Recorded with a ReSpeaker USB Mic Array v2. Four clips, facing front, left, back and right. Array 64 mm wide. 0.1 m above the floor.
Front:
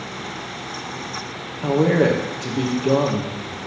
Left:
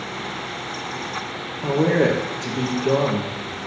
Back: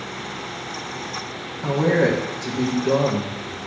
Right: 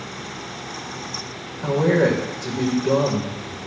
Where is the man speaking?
45° left, 3.5 m.